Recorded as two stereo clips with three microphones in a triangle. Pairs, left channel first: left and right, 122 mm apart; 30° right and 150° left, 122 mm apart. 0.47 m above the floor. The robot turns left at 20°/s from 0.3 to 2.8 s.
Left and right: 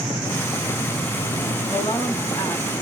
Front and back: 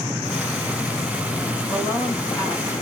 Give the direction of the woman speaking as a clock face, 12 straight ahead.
11 o'clock.